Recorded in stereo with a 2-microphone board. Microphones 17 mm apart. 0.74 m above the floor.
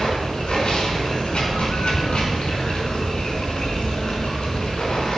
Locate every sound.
0.0 s running water: 75° left (ahead or behind), 5 m